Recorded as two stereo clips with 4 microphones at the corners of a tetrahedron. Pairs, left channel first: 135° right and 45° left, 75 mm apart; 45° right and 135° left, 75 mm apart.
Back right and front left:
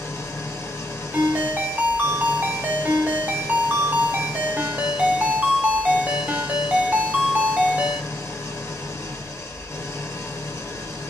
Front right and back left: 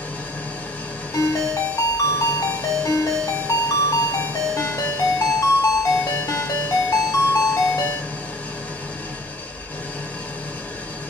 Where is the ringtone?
20° right, 0.8 m.